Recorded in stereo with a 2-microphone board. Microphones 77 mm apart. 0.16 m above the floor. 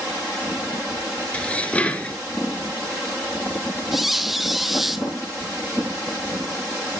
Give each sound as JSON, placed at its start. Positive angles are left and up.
{"t": 1.3, "sound": "dishes clattering", "side_deg": 15, "distance_m": 1.5}
{"t": 3.9, "sound": "a squeak", "side_deg": 0, "distance_m": 0.8}